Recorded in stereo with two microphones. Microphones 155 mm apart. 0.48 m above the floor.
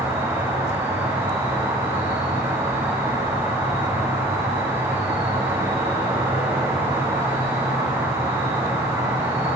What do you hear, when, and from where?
0.0 s an insect: 25° right (ahead or behind), 7 m